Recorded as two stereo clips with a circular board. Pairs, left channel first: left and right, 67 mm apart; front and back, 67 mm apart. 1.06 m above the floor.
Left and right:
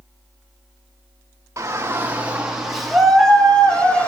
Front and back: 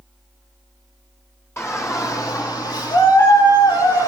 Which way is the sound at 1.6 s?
50° right.